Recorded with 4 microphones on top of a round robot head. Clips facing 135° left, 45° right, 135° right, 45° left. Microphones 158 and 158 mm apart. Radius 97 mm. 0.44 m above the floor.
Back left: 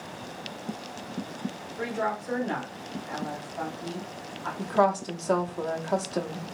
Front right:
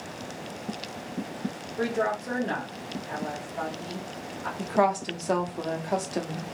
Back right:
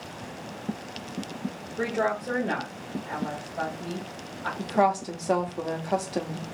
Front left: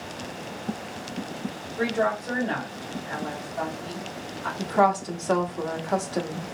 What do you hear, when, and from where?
1.8 s a woman speaking: 70° right, 1.5 m
4.6 s a woman speaking: 95° right, 0.8 m